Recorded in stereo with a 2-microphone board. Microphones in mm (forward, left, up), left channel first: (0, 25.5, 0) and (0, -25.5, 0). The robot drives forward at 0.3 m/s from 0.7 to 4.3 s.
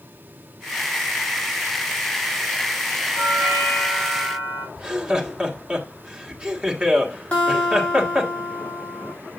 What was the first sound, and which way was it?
A doorbell, 60° left (ahead or behind).